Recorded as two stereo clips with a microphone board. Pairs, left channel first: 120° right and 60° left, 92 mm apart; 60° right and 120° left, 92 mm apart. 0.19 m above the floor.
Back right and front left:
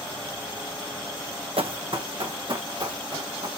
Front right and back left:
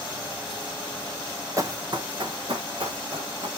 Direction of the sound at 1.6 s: 65° left.